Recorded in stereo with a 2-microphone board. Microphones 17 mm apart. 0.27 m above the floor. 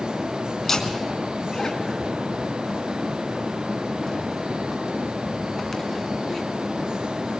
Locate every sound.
0.6 s laughter: 25° left (ahead or behind), 2 m